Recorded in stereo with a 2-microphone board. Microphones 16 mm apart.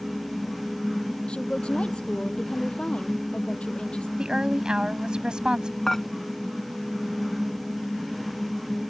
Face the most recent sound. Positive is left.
turn(degrees=10)  # may be behind; listen again after turning